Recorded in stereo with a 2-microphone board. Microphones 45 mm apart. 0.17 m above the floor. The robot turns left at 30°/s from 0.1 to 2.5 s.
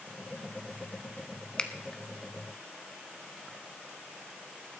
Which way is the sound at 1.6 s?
20° left (ahead or behind).